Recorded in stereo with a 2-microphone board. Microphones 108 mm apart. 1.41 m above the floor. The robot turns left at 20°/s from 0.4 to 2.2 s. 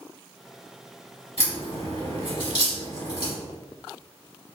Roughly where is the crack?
Left.